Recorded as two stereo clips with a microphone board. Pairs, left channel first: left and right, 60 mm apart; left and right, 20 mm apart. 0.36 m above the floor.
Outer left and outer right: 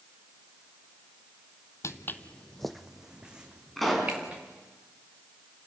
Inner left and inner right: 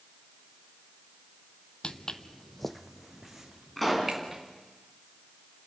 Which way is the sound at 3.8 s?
Centre (ahead or behind).